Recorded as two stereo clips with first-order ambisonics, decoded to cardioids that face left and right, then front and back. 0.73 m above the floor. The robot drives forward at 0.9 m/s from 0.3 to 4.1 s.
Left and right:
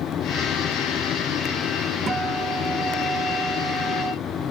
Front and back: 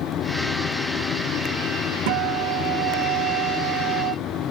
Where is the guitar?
165° right.